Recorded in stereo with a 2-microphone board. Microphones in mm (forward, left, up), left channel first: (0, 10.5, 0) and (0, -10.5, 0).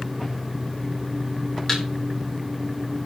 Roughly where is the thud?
Centre.